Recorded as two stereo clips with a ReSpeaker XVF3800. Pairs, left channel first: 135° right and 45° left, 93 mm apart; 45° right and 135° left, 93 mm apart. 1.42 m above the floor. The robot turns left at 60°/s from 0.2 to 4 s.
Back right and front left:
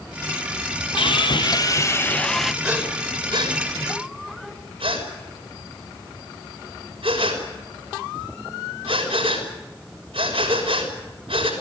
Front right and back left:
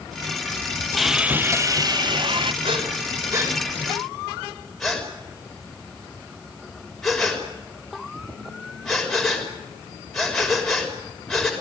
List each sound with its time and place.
1.0 s sawing: 135° right, 0.6 m; by 2.5 s 130° left, 0.6 m
2.6 s breathing: 125° left, 6 m; by 11.5 s 40° left, 6 m